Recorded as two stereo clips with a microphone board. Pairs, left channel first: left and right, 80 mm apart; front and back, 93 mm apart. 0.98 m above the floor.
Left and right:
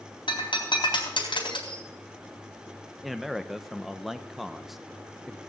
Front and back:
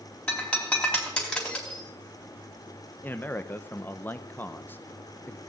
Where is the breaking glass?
75° left, 4 m.